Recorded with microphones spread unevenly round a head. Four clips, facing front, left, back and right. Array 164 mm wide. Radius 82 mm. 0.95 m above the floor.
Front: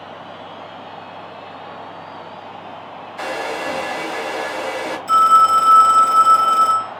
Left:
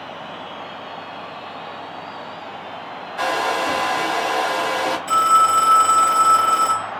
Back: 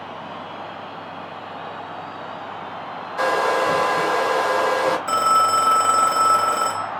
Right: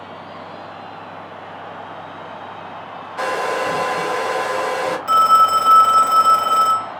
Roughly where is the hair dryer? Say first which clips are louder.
Even, back 6 dB; behind right.